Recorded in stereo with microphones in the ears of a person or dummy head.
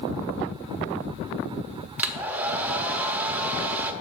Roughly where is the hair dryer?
Centre.